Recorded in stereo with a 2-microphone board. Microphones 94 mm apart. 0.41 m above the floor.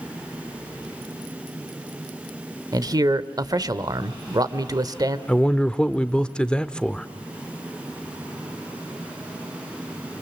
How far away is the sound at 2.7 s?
About 1.2 m.